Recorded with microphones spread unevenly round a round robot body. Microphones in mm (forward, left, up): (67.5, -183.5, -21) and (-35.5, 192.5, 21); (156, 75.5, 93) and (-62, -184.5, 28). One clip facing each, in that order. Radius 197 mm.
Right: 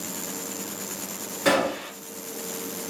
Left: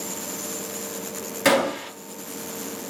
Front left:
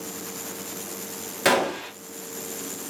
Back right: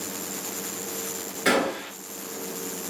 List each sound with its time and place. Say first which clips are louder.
1.4 s a gunshot: left 2 dB, front left 1 dB; 70° left, 3.5 m